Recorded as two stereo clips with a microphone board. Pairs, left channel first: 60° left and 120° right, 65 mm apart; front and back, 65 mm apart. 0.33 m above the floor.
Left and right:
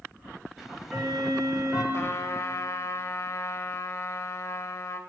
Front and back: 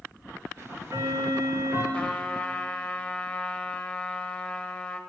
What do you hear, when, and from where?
0.6 s ticking: 155° left, 1.9 m
1.9 s a trumpet: 65° left, 0.6 m